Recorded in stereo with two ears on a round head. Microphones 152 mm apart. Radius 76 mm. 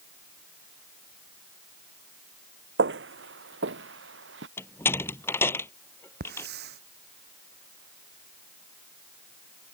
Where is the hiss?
65° right (ahead or behind).